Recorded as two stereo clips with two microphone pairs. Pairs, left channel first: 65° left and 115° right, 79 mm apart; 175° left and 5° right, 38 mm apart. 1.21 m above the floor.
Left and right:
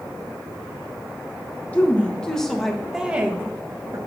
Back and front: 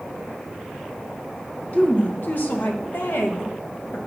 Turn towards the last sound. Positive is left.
turn(degrees=-165)